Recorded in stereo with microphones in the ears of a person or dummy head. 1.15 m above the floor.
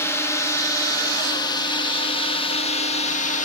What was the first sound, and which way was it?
A drone, 15° left (ahead or behind).